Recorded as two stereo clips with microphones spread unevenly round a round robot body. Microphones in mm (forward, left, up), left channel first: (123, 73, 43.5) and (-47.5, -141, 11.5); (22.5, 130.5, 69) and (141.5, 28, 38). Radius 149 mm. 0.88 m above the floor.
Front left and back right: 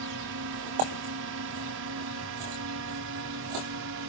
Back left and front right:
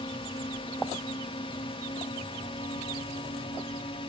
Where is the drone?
155° right.